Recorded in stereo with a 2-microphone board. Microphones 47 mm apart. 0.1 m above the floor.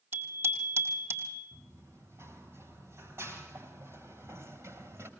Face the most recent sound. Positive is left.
turn(degrees=-60)  # may be behind; listen again after turning